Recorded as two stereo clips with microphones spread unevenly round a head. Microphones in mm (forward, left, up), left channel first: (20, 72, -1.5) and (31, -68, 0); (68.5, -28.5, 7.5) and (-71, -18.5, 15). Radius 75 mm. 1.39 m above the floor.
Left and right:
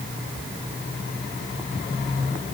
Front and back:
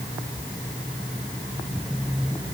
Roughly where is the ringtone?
No ringtone in this recording.